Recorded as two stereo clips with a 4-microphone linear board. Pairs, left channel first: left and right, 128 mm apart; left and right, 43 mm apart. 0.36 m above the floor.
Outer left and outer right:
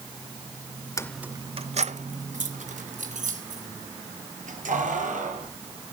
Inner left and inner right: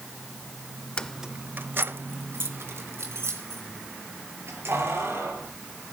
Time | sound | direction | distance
1.0 | keys jangling | 25° left (ahead or behind) | 0.5 m